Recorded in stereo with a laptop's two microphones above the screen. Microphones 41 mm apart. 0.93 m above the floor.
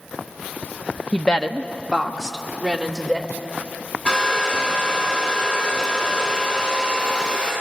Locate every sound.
1.1 s a woman speaking: 30° left (ahead or behind), 1.0 m; by 3.3 s 5° left (ahead or behind), 3 m
4.0 s a hair dryer: 30° left (ahead or behind), 9.5 m